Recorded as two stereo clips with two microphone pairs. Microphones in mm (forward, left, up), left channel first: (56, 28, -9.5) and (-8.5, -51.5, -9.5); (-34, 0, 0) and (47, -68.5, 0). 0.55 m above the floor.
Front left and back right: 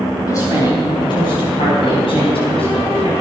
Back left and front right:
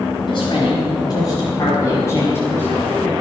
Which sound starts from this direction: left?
A woman speaking, at 0.3 s.